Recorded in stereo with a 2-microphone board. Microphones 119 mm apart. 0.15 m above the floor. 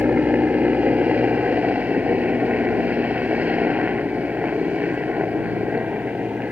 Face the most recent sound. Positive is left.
turn(degrees=-10)  # may be behind; listen again after turning